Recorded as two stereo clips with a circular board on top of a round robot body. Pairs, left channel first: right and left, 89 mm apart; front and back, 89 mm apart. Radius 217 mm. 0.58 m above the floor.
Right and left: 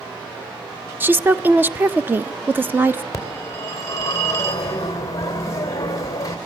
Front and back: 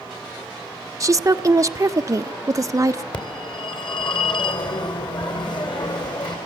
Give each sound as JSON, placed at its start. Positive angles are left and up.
{"t": 1.0, "sound": "a woman speaking", "azimuth_deg": 150, "distance_m": 0.8}
{"t": 3.1, "sound": "a phone ringing", "azimuth_deg": -35, "distance_m": 3.0}